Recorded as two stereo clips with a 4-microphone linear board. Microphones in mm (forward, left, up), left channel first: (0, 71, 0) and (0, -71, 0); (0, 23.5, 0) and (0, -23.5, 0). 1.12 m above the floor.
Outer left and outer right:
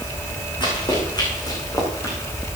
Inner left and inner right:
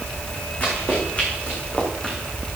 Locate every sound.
0.6 s running footsteps: 30° left (ahead or behind), 4.5 m; by 2.2 s 20° left (ahead or behind), 5 m